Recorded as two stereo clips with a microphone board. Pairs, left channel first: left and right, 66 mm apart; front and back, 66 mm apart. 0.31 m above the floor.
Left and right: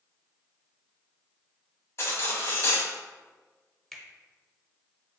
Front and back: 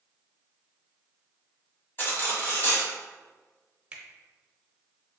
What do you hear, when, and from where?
2.0 s cutlery clinking: 50° left, 1.2 m
3.9 s a finger snap: 170° left, 0.7 m